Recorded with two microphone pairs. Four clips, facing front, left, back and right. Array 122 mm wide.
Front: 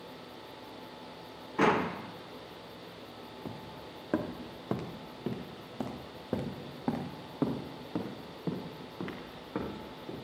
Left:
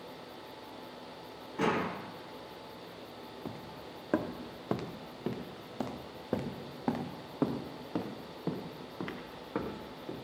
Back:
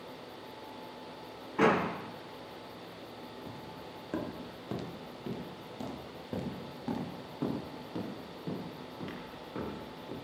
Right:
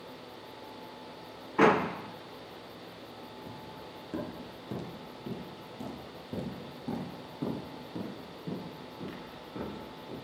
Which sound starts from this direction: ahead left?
Footsteps, at 3.5 s.